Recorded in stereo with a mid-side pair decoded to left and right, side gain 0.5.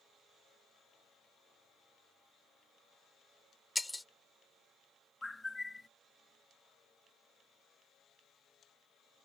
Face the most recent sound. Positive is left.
turn(degrees=15)